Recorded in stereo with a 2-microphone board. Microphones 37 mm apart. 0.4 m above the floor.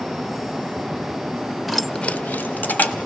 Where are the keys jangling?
Centre (ahead or behind), 0.8 m; by 3.0 s 55° left (ahead or behind), 1.6 m.